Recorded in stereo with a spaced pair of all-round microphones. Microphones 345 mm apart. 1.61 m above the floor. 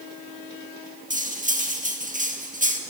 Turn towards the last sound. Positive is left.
turn(degrees=-20)  # may be behind; listen again after turning